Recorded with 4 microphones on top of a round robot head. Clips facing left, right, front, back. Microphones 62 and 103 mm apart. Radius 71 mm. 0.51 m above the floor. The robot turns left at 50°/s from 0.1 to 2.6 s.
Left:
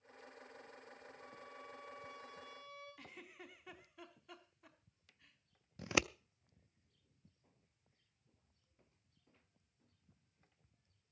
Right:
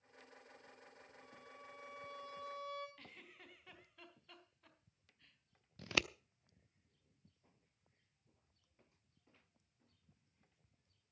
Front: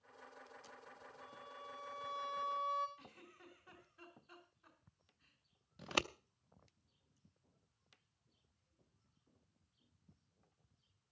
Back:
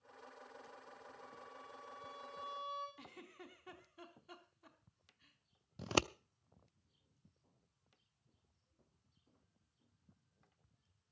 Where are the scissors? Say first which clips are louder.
Left 3 dB, back 4 dB; 150° left, 0.7 m.